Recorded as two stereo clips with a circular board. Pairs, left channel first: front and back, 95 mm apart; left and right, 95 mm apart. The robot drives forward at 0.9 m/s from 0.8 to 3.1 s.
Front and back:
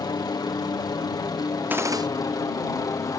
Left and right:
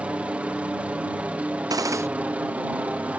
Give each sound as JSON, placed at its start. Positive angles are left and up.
{"t": 0.0, "sound": "a helicopter", "azimuth_deg": -20}
{"t": 1.7, "sound": "a gunshot", "azimuth_deg": -115}